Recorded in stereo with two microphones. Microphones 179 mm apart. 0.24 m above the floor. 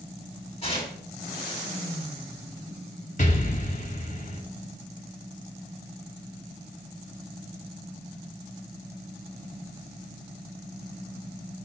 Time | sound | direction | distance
0.6 | tearing paper | 35° left (ahead or behind) | 2 m
3.2 | an explosion | 45° left (ahead or behind) | 1.0 m